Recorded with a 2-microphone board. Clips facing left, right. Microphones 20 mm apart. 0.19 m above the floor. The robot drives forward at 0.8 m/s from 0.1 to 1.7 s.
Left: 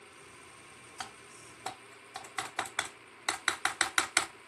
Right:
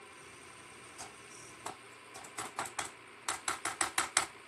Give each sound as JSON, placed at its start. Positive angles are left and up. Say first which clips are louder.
{"t": 1.0, "sound": "typing on a keyboard", "louder": "left 7 dB", "side_deg": 70, "distance_m": 0.7}